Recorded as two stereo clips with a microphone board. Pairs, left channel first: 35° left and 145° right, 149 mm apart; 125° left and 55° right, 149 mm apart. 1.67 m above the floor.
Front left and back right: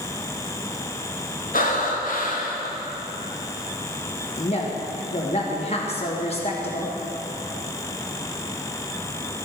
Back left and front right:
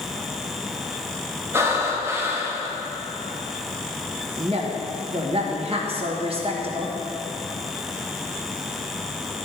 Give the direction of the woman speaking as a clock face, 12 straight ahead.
12 o'clock.